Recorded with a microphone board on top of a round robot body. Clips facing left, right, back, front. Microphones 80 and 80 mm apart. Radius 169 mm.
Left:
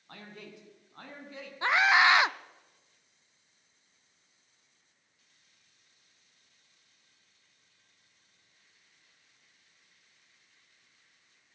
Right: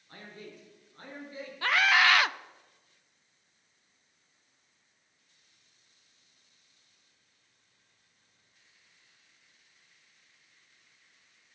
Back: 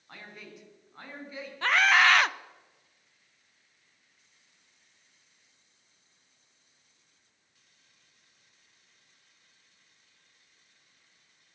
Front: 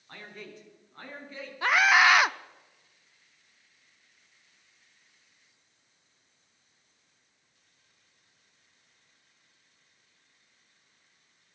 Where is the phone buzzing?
No phone buzzing in this recording.